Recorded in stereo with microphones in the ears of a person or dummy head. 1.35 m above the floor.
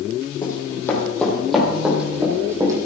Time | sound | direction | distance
0.4 | running footsteps | 20° left (ahead or behind) | 2.5 m